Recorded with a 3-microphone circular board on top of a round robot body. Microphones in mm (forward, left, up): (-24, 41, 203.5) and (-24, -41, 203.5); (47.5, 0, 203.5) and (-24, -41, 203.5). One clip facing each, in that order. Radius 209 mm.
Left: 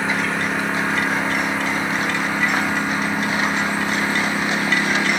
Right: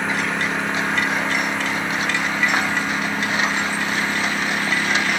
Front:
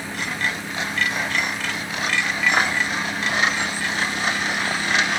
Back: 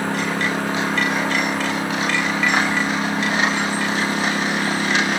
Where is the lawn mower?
Straight behind; by 5.2 s 170° left.